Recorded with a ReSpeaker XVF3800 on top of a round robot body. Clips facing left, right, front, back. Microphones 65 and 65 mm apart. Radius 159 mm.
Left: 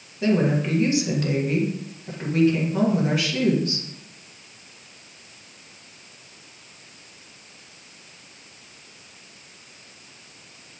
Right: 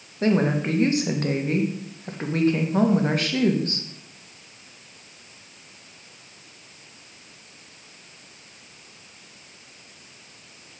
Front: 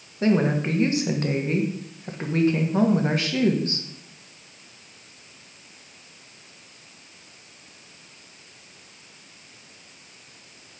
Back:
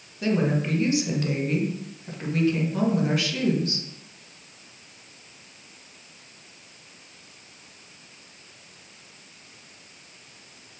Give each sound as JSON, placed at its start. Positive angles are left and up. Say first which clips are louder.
{"t": 0.2, "sound": "a woman speaking", "louder": "even, front 3 dB", "azimuth_deg": -50, "distance_m": 1.8}